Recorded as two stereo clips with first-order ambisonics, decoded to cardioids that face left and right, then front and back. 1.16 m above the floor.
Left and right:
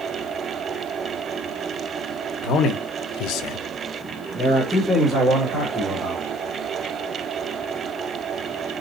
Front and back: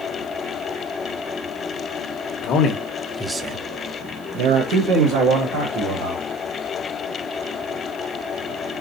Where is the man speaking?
45° left, 1.1 m; by 6.2 s 170° right, 3 m.